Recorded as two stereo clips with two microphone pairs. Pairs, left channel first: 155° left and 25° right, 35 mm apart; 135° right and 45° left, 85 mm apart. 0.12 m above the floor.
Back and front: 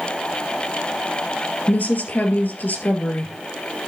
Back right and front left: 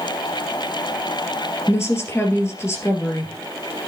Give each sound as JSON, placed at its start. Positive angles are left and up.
{"t": 1.7, "sound": "a woman speaking", "azimuth_deg": 175, "distance_m": 2.5}